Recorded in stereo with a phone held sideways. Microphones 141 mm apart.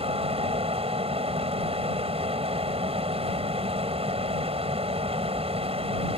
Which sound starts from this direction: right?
A fan, at 0.0 s.